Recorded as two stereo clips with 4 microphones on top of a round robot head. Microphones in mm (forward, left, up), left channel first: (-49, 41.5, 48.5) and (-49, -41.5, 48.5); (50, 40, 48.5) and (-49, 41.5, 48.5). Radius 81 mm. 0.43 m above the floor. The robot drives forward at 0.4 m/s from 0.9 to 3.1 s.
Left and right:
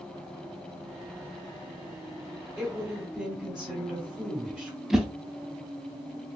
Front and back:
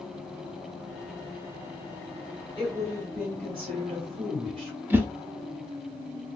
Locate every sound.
2.6 s a woman speaking: 165° right, 1.9 m
4.9 s a whoosh: 170° right, 0.6 m